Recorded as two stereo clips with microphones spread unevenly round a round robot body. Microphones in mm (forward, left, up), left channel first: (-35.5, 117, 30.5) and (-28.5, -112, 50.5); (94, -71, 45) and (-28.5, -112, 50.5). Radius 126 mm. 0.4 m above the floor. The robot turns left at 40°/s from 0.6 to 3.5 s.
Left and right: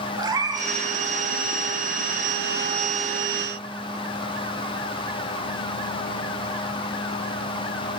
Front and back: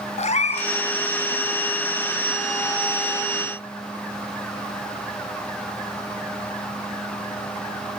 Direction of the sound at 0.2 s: 15° right.